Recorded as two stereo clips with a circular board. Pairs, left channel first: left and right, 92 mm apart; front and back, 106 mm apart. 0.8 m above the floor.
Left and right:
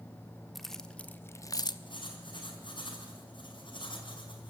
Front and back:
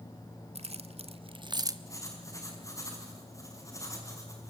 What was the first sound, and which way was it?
Keys jangling, straight behind.